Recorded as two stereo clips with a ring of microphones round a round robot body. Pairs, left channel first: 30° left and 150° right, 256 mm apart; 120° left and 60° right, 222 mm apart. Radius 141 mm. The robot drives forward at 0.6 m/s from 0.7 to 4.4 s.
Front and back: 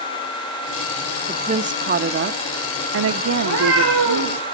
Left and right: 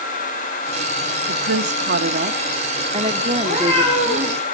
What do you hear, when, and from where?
1.3 s a woman speaking: 80° right, 1.4 m; by 4.4 s 145° right, 2 m
3.4 s a cat meowing: 170° left, 9 m